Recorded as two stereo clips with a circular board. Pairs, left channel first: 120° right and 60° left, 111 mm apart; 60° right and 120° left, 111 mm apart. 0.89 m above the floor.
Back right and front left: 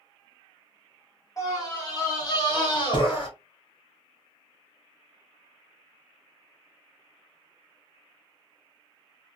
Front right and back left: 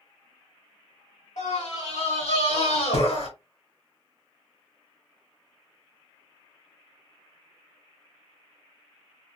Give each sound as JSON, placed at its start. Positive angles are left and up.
{"t": 1.4, "sound": "a scream", "azimuth_deg": -65, "distance_m": 3.0}